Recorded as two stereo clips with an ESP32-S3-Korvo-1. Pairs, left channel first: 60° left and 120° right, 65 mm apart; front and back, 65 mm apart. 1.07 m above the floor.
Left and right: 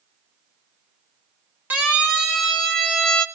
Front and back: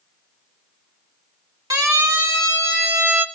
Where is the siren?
175° left, 2 m; by 3.2 s 135° left, 1.6 m.